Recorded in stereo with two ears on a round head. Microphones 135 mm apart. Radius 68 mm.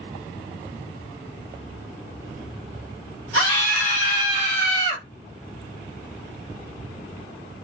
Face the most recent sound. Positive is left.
turn(degrees=20)  # may be behind; listen again after turning